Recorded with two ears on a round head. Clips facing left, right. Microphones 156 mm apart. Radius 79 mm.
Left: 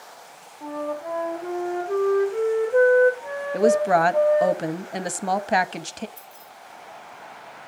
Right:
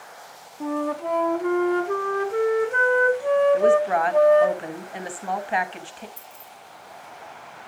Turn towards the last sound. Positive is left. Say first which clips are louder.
# even
turn(degrees=-20)  # may be behind; listen again after turning